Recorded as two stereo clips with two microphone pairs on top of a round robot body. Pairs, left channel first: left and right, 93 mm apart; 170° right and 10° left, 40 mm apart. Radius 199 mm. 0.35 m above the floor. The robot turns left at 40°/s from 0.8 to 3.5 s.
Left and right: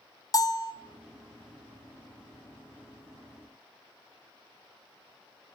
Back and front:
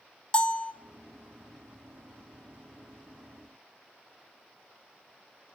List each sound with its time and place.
0.3 s a bell: 135° left, 2 m